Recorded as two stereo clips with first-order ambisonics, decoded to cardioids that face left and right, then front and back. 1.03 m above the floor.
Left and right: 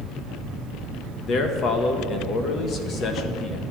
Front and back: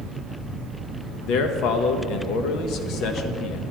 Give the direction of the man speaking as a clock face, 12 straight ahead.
11 o'clock.